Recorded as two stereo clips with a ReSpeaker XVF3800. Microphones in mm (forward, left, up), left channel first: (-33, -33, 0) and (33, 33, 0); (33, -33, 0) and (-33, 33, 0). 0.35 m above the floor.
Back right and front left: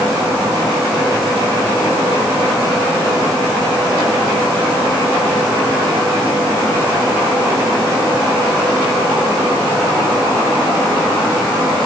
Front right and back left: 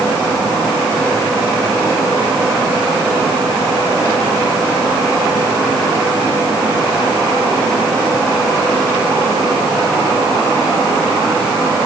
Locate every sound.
Only background noise.